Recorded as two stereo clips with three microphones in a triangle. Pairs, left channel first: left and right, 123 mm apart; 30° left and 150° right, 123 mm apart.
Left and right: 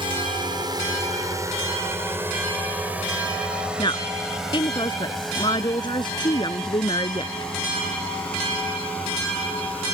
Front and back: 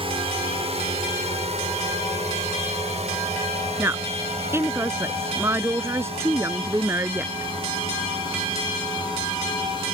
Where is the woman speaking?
140° left.